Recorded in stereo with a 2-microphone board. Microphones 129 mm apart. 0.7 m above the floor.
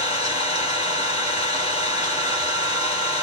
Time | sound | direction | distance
0.0 | an engine running | 60° left (ahead or behind) | 2.0 m